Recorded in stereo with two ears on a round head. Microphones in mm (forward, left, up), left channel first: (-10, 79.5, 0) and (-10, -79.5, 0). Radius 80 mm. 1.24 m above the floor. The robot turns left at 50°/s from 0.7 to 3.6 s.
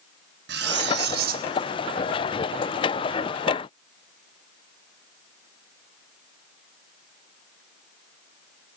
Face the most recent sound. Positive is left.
turn(degrees=130)